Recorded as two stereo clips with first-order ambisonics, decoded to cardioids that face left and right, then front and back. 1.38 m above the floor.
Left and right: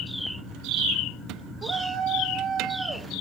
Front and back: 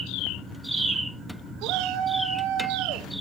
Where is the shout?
150° right, 3.5 m.